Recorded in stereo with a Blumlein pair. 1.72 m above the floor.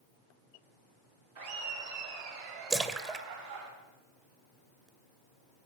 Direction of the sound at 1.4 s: 65° right.